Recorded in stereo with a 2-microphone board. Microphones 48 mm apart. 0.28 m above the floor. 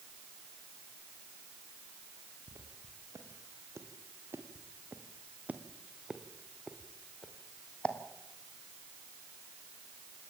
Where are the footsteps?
85° right, 4.5 m; by 8.0 s 25° left (ahead or behind), 3 m.